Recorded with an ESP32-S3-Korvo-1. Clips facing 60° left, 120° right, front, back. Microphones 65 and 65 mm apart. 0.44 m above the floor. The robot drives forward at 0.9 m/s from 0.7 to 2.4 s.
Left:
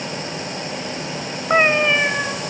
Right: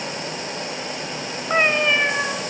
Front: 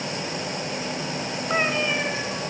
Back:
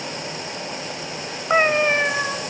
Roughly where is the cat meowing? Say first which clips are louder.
Left 3 dB, back 7 dB; behind left.